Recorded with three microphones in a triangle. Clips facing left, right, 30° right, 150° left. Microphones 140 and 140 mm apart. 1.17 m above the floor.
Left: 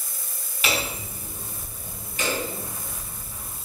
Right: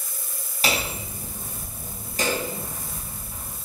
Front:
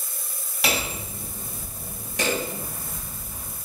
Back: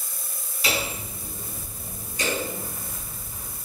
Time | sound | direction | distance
0.6 | hammering | 35° right | 3 m